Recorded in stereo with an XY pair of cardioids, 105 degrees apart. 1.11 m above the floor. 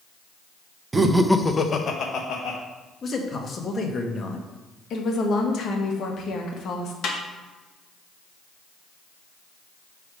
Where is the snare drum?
55° left, 1.1 m.